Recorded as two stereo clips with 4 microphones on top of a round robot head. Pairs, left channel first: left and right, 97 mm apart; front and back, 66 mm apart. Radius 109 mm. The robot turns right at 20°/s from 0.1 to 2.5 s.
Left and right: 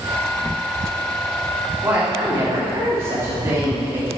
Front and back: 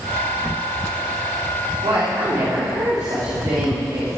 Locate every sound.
1.8 s a woman speaking: 155° right, 2.5 m; by 4.1 s 140° right, 2.5 m